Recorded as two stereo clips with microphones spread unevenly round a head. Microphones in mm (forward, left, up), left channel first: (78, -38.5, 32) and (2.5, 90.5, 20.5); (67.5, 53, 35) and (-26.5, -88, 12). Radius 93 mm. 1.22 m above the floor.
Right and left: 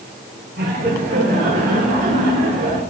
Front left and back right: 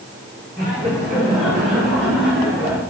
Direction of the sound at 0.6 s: 140° left.